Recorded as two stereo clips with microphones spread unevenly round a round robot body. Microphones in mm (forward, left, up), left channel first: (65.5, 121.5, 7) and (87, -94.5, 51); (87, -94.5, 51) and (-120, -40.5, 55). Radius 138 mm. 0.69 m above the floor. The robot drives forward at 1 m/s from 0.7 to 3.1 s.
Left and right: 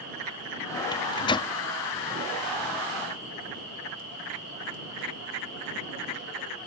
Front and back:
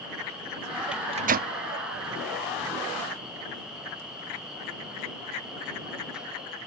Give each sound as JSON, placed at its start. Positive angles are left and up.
{"t": 0.9, "sound": "a microwave", "azimuth_deg": 80}